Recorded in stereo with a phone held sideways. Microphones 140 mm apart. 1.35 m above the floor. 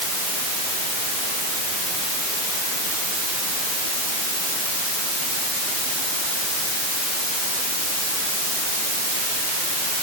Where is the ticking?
No ticking in this recording.